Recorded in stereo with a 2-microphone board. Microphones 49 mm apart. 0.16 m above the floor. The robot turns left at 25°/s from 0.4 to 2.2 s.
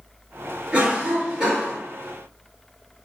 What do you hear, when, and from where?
0.7 s a cough: 15° right (ahead or behind), 1.5 m; by 1.8 s 5° right (ahead or behind), 1.5 m